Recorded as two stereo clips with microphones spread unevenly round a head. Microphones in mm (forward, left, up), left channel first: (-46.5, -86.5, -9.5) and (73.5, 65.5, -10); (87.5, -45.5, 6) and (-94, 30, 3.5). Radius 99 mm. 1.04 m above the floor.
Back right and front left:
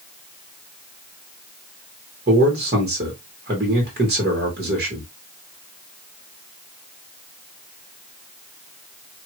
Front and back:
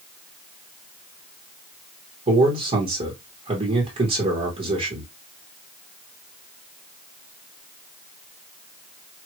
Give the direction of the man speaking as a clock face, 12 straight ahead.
9 o'clock.